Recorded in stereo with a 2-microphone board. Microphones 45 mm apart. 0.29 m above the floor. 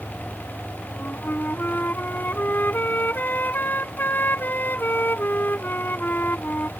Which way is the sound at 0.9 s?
45° left (ahead or behind).